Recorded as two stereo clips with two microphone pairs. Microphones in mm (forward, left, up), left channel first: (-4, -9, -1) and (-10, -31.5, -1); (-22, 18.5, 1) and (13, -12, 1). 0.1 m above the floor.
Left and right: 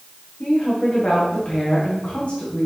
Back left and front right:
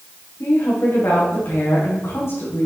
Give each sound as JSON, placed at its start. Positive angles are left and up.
{"t": 0.4, "sound": "a woman speaking", "azimuth_deg": 110, "distance_m": 6.0}